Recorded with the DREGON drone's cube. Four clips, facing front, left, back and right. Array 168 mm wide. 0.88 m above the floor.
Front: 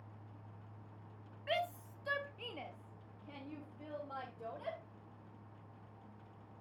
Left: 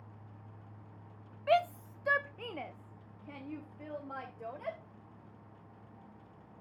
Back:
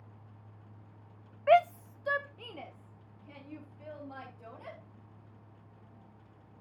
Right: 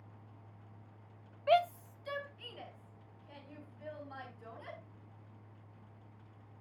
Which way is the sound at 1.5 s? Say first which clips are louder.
Even, back 15 dB; 175° right.